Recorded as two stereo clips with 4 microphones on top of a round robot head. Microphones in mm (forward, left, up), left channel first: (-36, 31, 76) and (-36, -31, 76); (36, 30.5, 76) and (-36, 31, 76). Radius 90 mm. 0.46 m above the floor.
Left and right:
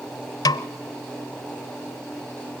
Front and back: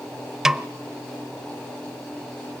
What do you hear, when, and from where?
0.5 s a snare drum: 95° left, 0.6 m